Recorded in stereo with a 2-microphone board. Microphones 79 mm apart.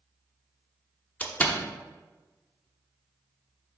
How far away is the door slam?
About 0.7 m.